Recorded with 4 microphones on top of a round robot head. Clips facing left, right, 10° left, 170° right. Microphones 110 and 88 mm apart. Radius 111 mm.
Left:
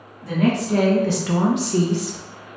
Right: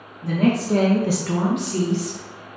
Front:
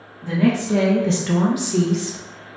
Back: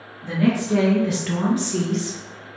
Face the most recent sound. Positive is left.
turn(degrees=100)